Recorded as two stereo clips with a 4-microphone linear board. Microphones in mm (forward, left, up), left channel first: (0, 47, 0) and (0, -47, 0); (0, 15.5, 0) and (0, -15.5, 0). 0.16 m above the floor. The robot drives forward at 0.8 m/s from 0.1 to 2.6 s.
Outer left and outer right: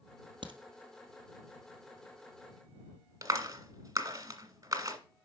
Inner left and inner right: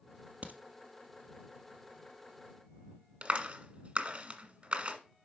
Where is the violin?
No violin in this recording.